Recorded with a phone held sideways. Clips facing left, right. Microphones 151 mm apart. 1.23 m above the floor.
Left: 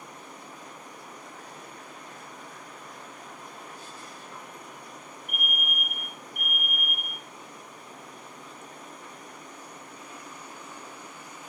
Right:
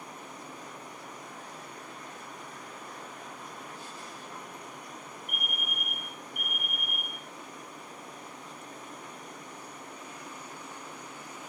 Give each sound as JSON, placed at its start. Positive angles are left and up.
{"t": 5.3, "sound": "a fire alarm", "side_deg": -35, "distance_m": 3.0}